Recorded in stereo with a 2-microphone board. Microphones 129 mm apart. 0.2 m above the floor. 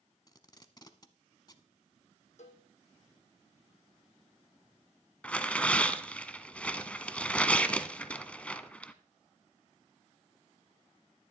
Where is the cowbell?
65° left (ahead or behind), 1.6 m.